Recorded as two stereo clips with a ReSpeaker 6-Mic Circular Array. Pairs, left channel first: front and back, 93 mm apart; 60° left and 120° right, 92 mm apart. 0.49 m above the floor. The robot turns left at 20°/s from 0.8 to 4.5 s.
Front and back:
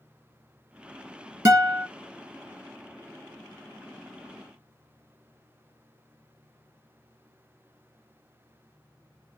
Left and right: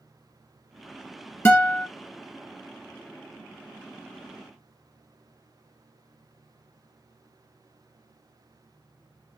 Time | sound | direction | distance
1.4 | a guitar | 135° left | 1.4 m